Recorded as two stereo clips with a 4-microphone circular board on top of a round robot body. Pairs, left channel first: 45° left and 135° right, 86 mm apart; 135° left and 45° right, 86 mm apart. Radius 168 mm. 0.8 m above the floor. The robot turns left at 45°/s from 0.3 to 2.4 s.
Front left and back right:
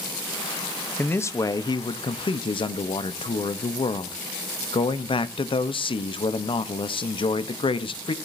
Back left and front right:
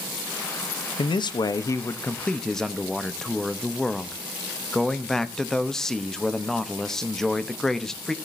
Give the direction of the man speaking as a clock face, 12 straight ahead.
8 o'clock.